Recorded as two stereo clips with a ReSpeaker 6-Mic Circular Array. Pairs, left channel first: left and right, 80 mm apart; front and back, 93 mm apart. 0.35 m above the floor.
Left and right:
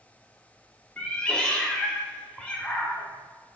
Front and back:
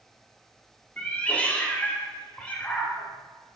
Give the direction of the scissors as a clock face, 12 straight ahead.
I don't hear scissors.